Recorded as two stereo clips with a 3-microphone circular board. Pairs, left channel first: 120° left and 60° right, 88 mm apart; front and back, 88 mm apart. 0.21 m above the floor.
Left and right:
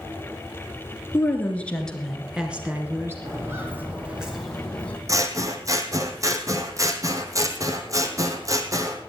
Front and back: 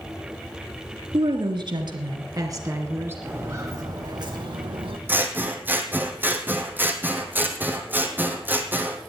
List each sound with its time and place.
1.1 s a woman speaking: straight behind, 2.5 m; by 3.1 s 120° right, 2.5 m
3.2 s footsteps: 115° right, 3 m; by 5.0 s 165° right, 2.5 m
5.1 s scissors: 110° right, 1.4 m